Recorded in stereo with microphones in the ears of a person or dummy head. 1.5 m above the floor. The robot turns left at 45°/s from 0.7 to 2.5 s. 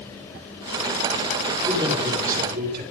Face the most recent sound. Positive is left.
turn(degrees=-60)